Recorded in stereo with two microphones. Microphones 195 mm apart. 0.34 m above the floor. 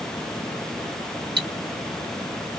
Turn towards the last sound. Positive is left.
turn(degrees=-55)  # may be behind; listen again after turning